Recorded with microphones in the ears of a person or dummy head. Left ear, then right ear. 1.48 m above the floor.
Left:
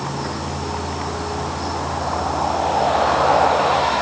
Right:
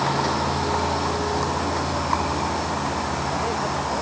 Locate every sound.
0.0 s a vehicle: 90° right; by 4.0 s 65° right (ahead or behind)